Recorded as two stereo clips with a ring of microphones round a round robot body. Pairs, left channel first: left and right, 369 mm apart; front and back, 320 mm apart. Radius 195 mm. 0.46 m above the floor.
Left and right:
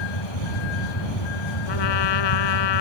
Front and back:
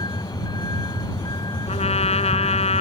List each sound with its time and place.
0.0 s a vehicle: 75° left; by 2.8 s 80° left
1.7 s a trumpet: 70° left